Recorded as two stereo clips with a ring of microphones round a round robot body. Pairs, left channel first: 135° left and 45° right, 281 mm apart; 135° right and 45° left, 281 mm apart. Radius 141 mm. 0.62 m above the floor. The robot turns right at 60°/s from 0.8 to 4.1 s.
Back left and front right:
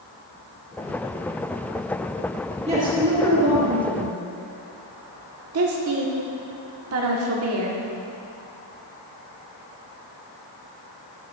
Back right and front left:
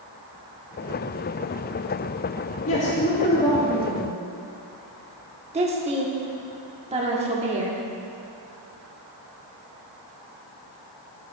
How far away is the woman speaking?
About 1.4 m.